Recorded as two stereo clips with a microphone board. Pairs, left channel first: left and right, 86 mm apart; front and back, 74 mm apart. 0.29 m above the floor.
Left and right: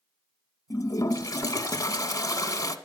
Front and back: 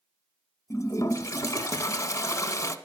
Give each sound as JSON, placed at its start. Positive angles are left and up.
{"t": 0.7, "sound": "a toilet flushing", "azimuth_deg": 45, "distance_m": 0.6}